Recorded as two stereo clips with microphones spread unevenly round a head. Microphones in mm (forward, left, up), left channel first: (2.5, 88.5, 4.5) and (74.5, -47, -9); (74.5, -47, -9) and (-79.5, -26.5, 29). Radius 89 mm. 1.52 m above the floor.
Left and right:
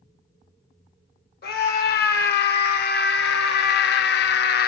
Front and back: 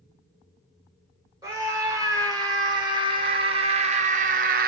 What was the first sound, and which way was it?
A scream, 100° left.